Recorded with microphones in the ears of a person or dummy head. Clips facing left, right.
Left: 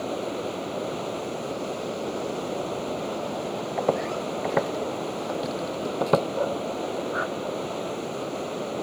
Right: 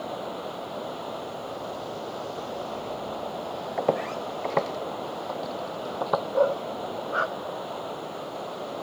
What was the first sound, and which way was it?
Running water, 30° left (ahead or behind).